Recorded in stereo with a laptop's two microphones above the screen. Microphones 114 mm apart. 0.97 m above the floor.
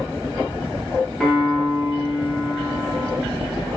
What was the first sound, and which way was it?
A piano, centre (ahead or behind).